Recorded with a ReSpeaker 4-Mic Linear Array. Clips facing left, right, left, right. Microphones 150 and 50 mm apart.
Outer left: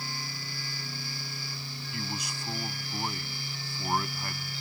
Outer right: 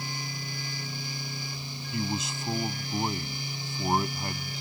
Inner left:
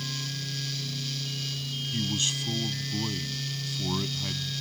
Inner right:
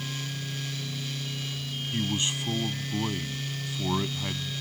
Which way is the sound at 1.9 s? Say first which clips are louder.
Outer right 7 dB, inner right 2 dB; 20° right (ahead or behind).